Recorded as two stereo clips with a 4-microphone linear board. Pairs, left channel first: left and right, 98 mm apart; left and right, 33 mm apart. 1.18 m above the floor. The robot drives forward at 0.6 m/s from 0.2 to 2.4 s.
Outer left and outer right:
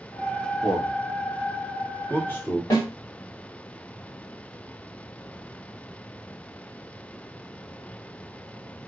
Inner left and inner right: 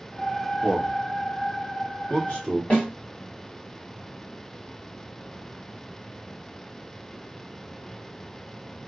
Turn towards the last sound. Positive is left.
turn(degrees=40)  # may be behind; listen again after turning